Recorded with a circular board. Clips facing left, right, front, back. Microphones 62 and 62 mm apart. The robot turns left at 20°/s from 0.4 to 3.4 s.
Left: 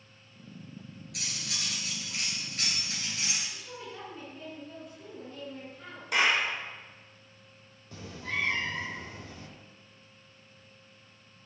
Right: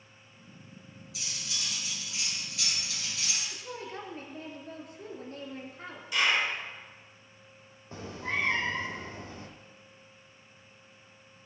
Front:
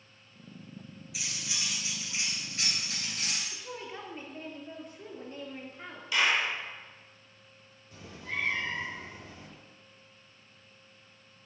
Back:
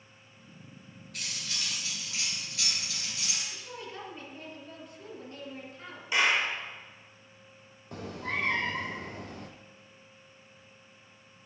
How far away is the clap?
About 4 m.